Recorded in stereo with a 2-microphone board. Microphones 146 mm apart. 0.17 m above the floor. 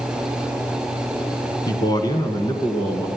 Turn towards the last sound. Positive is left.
turn(degrees=25)  # may be behind; listen again after turning